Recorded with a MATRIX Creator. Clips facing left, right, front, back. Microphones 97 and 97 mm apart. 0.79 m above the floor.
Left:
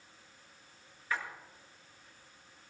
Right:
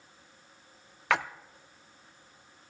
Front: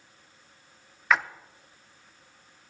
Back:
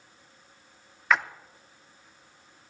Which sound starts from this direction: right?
A splash, at 1.1 s.